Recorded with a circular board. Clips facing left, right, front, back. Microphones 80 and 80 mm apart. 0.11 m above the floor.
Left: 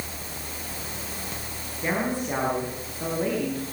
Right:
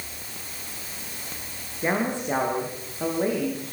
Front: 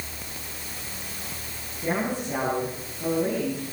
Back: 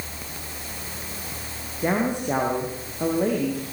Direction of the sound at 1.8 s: 160° right.